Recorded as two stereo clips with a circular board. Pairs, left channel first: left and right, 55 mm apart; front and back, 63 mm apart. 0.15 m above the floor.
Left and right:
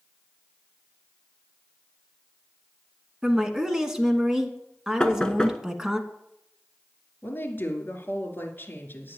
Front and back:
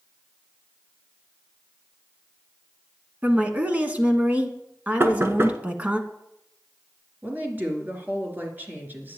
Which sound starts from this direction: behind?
Knocking, at 5.0 s.